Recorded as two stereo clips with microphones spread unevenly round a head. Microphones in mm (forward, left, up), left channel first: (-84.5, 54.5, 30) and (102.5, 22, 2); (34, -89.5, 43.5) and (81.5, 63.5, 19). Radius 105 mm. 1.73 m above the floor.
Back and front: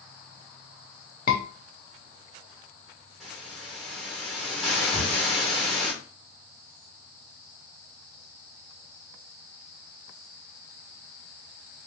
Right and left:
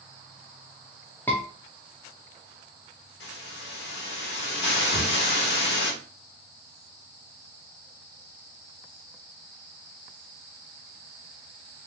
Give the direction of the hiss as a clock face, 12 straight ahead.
3 o'clock.